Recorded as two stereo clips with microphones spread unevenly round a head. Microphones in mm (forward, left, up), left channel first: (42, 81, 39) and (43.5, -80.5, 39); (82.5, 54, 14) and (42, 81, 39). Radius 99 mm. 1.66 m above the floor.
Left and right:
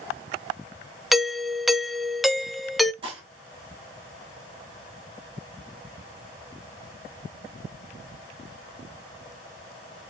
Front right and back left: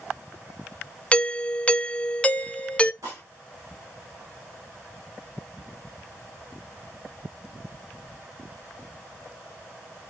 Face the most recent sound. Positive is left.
turn(degrees=-155)